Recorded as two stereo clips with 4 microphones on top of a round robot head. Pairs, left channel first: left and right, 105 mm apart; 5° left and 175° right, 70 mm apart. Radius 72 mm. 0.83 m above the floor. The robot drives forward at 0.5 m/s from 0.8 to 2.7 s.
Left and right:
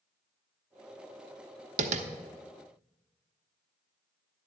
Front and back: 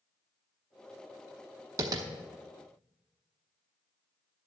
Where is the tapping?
115° right, 0.6 m; by 2.1 s 125° right, 0.7 m.